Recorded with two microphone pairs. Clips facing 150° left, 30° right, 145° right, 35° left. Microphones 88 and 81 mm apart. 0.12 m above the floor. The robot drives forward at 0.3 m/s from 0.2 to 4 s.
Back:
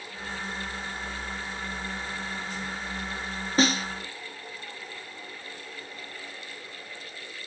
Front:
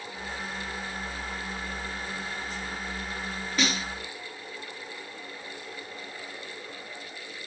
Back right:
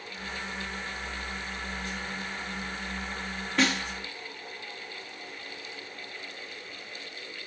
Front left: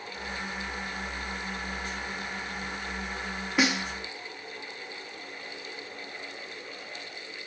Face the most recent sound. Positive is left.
turn(degrees=120)